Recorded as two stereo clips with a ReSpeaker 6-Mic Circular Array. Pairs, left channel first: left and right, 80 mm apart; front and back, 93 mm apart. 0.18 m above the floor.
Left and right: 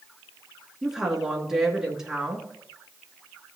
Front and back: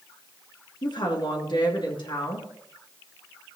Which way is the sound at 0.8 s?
5° right.